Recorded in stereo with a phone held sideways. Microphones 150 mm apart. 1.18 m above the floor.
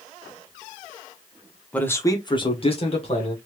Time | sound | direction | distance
1.7 | a man speaking | 10° left (ahead or behind) | 0.8 m